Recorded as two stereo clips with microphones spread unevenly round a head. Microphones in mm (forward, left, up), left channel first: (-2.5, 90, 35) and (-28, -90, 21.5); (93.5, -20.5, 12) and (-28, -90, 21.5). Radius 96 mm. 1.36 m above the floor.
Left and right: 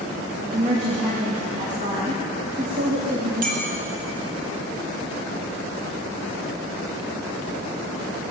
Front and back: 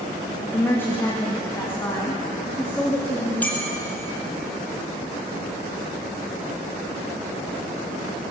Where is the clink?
50° right, 2.5 m.